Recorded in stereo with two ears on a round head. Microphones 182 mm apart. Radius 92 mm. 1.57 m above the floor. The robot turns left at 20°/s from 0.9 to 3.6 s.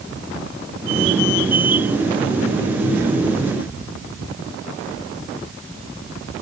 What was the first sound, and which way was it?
Only background noise.